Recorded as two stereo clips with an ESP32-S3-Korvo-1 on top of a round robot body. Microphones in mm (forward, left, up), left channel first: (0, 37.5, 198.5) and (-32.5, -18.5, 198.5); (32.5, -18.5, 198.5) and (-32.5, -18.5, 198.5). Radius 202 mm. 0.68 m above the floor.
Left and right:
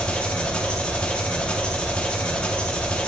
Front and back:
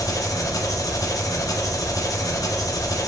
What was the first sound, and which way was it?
An engine running, 10° right.